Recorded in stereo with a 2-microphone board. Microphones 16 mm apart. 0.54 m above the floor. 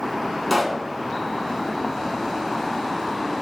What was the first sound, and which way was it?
A pop, 5° left (ahead or behind).